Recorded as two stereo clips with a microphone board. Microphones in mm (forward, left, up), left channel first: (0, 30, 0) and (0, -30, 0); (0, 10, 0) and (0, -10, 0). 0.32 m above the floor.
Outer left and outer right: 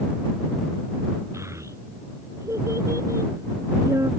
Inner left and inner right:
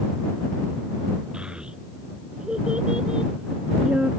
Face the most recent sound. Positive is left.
turn(degrees=-55)  # may be behind; listen again after turning